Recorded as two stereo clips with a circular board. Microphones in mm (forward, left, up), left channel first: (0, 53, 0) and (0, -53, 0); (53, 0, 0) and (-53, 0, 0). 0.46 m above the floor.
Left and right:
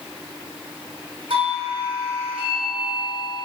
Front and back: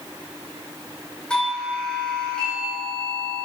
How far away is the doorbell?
About 3 m.